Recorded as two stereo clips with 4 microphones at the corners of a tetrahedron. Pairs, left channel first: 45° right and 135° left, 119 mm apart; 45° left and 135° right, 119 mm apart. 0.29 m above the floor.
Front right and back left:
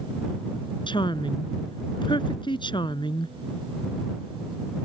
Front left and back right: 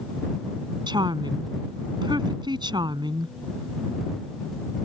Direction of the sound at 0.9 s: 90° right.